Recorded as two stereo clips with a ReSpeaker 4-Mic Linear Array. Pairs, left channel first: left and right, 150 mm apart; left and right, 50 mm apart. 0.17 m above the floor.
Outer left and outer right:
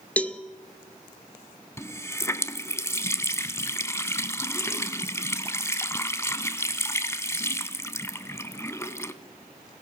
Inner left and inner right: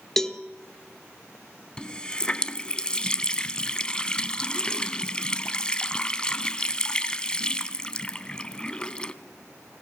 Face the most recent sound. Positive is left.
turn(degrees=20)  # may be behind; listen again after turning